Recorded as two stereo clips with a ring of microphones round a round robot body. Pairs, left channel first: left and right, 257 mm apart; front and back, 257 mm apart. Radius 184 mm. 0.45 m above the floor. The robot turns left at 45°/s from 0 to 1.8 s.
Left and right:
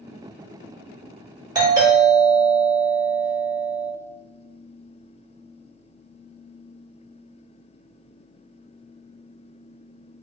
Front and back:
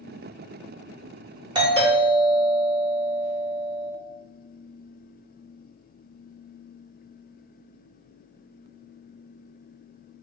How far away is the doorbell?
About 1.6 m.